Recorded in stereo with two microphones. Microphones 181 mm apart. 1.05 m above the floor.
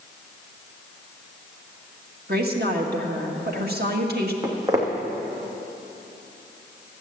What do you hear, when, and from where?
2.3 s a woman speaking: 60° right (ahead or behind), 1.7 m
4.4 s footsteps: 20° right (ahead or behind), 2 m